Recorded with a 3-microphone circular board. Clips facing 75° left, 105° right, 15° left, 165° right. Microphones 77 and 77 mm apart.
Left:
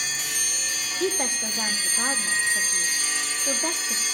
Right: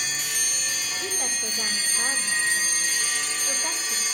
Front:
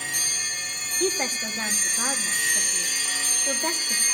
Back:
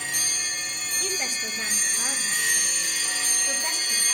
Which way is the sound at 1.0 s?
60° left.